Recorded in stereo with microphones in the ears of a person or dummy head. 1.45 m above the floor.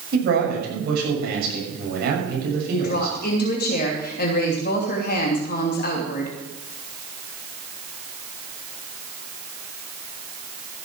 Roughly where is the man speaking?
Right.